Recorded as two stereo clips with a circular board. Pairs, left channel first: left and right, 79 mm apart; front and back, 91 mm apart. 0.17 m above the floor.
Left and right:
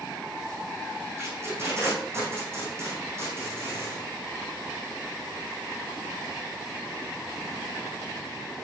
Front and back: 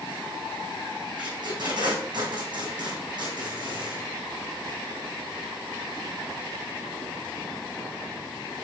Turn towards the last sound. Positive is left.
turn(degrees=-150)